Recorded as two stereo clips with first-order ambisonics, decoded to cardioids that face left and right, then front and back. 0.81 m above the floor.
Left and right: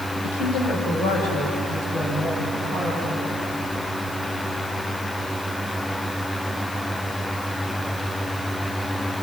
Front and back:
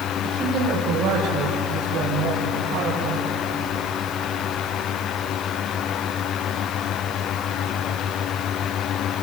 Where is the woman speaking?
125° left, 3 m; by 3.2 s 160° left, 5 m.